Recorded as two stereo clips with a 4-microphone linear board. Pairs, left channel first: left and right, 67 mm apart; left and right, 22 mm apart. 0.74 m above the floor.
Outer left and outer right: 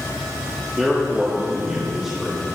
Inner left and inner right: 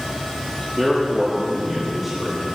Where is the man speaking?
10° right (ahead or behind), 1.6 m.